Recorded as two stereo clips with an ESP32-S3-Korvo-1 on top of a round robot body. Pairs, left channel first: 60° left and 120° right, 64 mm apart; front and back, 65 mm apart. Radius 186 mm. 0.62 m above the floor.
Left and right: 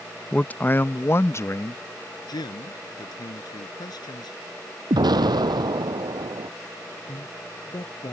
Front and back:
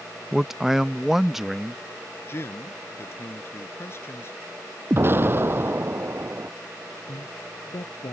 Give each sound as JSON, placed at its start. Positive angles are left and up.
{"t": 0.3, "sound": "a man speaking", "azimuth_deg": 100}
{"t": 2.3, "sound": "a man speaking", "azimuth_deg": 55}
{"t": 4.9, "sound": "an explosion", "azimuth_deg": -125}
{"t": 7.1, "sound": "a man speaking", "azimuth_deg": 30}